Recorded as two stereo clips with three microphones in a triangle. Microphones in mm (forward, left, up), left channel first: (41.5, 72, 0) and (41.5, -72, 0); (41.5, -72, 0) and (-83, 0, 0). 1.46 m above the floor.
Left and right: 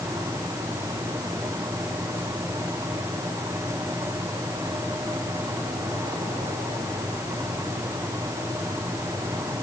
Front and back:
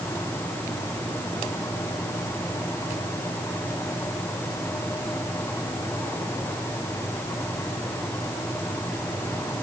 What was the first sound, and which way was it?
Only background noise.